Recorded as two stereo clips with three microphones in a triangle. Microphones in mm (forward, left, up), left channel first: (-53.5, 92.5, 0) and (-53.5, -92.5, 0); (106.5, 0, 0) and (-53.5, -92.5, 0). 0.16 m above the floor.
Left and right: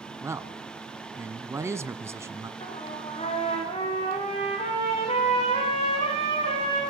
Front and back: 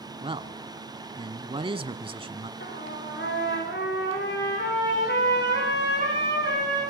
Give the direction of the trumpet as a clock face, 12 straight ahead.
11 o'clock.